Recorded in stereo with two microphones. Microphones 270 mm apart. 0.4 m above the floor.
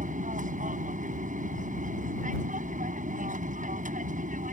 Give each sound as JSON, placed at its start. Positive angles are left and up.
{"t": 0.0, "sound": "an aircraft", "side_deg": -30}